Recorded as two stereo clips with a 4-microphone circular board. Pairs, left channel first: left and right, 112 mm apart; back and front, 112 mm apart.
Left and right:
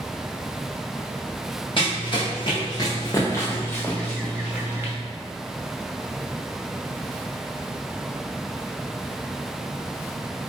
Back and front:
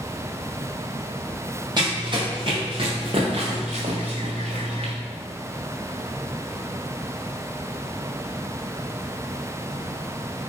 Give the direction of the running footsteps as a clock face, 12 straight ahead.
10 o'clock.